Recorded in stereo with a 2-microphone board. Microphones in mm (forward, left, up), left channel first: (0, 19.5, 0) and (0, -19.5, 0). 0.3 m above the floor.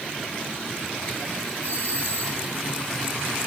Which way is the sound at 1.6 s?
50° left (ahead or behind).